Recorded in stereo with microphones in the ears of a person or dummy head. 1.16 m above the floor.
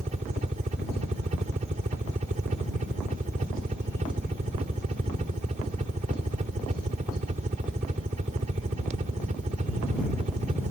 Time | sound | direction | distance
0.0 | a helicopter | 40° right (ahead or behind) | ?